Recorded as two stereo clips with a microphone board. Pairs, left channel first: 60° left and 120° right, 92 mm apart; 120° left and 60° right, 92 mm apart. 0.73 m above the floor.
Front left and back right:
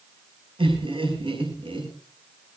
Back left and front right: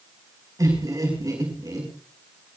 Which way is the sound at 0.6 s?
110° right.